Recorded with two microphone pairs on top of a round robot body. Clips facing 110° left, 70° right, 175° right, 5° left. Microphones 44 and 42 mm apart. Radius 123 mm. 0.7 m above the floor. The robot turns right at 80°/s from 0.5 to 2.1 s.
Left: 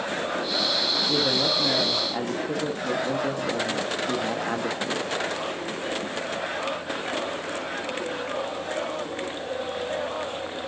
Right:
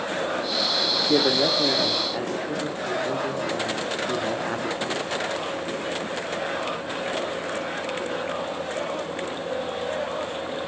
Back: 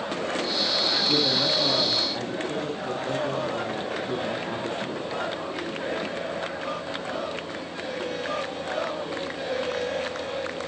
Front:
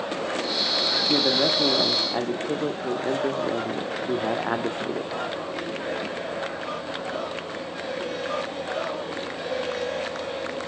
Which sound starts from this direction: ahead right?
A man speaking, at 1.1 s.